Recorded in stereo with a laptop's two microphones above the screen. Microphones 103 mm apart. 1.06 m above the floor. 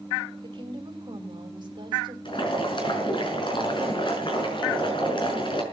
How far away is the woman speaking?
About 5 m.